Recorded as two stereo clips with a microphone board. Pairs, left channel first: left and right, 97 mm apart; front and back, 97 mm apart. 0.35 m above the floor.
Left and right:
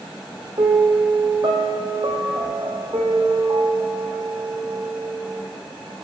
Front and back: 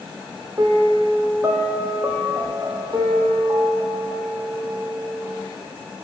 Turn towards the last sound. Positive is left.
turn(degrees=-125)